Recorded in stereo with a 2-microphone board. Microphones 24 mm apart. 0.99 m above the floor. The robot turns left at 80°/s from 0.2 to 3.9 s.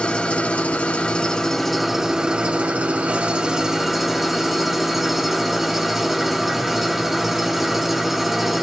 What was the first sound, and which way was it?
An engine running, 125° left.